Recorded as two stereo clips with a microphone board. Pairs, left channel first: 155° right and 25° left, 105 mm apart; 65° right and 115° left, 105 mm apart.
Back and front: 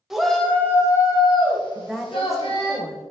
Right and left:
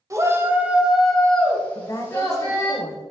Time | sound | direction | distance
0.1 | a shout | 105° left | 1.1 m
1.8 | a woman speaking | 70° right | 1.0 m